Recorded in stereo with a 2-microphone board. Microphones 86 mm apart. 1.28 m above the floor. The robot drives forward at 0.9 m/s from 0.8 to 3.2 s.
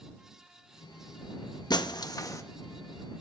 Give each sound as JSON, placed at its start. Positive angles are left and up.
{"t": 1.7, "sound": "breaking glass", "side_deg": 55, "distance_m": 0.7}